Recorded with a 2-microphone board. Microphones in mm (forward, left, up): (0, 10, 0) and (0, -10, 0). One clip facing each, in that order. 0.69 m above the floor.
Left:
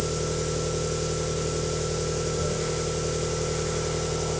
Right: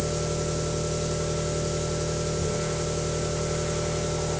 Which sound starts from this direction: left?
An engine running, at 0.0 s.